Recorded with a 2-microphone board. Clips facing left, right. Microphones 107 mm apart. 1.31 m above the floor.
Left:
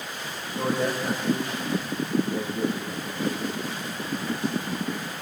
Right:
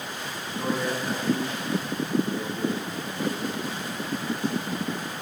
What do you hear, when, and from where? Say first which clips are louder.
0.5 s a man speaking: left 2 dB; 55° left (ahead or behind), 5 m